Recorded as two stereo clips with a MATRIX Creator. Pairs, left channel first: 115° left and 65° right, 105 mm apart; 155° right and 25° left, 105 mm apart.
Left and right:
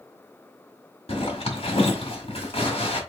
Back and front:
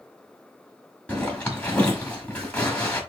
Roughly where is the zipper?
Behind left.